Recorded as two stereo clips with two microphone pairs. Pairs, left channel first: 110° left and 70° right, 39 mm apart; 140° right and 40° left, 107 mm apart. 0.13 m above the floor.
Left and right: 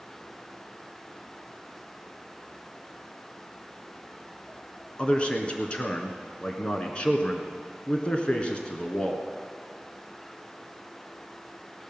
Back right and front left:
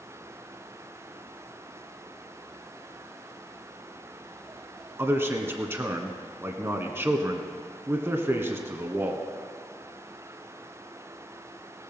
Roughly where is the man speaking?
Left.